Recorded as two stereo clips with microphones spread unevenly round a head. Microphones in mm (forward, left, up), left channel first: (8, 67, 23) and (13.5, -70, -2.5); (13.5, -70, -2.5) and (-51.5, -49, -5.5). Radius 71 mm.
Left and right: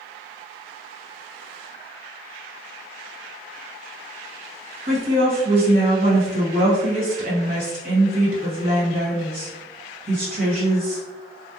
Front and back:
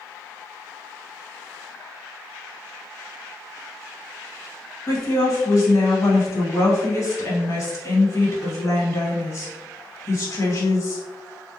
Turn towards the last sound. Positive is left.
turn(degrees=-55)